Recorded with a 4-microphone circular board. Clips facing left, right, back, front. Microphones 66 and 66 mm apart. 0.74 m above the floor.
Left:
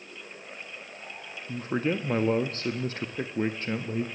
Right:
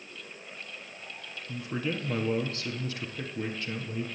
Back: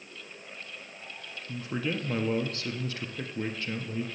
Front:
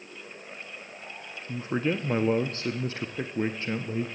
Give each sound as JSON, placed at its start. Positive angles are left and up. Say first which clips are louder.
{"t": 1.5, "sound": "a man speaking", "louder": "left 5 dB, front 4 dB", "azimuth_deg": 50, "distance_m": 0.7}